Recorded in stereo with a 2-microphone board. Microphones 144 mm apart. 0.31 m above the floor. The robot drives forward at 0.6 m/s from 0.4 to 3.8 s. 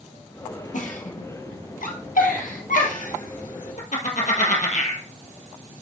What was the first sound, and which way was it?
A giggle, 70° left (ahead or behind).